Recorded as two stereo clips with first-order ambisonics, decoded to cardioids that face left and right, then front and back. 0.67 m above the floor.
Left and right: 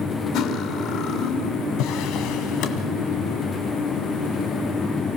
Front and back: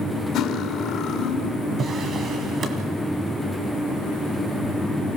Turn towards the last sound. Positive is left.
turn(degrees=120)